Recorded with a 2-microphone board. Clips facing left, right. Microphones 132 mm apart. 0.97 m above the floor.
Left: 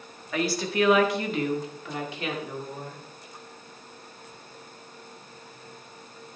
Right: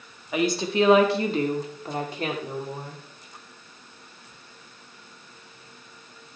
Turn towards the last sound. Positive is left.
turn(degrees=-50)  # may be behind; listen again after turning